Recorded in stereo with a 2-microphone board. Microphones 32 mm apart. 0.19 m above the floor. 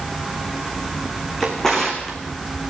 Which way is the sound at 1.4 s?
15° left (ahead or behind).